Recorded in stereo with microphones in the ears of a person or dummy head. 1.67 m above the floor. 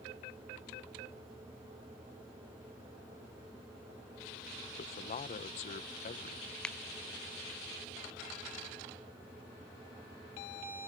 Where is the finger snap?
5° left (ahead or behind).